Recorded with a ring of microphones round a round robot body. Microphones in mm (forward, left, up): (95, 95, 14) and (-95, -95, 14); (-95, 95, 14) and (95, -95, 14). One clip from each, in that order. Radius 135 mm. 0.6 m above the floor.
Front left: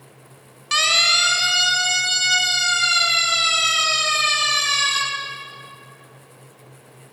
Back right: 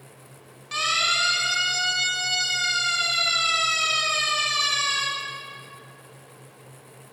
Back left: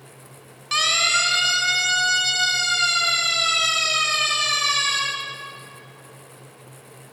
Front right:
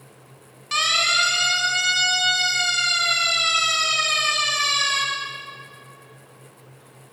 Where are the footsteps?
I don't hear footsteps.